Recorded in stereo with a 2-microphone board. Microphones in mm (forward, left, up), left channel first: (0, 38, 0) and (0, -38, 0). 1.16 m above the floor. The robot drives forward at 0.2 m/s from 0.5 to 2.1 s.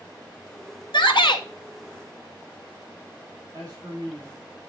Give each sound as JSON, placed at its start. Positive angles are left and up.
{"t": 0.9, "sound": "a shout", "side_deg": 80, "distance_m": 1.2}
{"t": 3.5, "sound": "a man speaking", "side_deg": -40, "distance_m": 2.5}